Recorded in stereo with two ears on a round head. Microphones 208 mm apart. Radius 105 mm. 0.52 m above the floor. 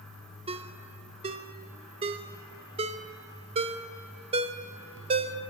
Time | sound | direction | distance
0.5 | a ringtone | 25° right (ahead or behind) | 0.6 m